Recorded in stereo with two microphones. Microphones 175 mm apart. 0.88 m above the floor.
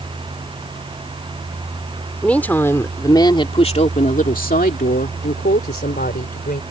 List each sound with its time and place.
2.2 s a woman speaking: 5° left (ahead or behind); by 6.6 s 70° left (ahead or behind)